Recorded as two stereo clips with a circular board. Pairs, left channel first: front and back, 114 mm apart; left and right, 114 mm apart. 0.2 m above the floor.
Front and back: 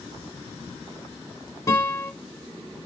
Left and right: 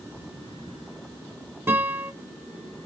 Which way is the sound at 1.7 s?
40° right.